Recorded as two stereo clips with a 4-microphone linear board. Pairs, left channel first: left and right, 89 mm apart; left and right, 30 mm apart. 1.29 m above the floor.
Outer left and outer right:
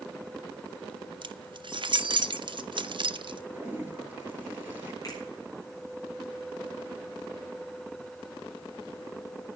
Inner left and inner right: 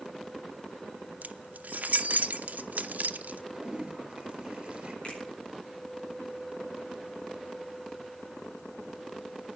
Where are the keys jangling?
65° right (ahead or behind), 0.7 m.